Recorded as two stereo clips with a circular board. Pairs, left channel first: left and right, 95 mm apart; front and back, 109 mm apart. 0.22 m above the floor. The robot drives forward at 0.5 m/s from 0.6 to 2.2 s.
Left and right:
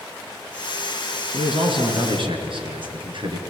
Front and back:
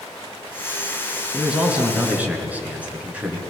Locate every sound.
1.3 s a man speaking: 95° right, 3.5 m; by 3.4 s 105° right, 3.5 m